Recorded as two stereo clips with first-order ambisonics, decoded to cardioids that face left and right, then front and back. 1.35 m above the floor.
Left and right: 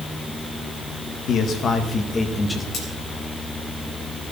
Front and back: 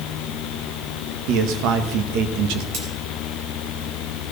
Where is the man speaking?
145° left, 1.4 m; by 2.6 s 175° left, 1.2 m.